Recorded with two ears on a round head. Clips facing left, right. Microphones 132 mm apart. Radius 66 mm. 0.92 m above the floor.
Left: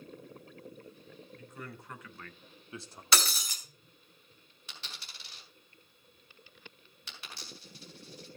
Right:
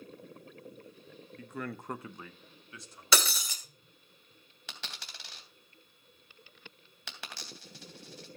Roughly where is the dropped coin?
Right.